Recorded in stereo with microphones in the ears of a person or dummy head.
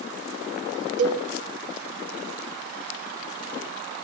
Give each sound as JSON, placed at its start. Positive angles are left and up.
{"t": 1.0, "sound": "a cowbell", "side_deg": -65, "distance_m": 1.1}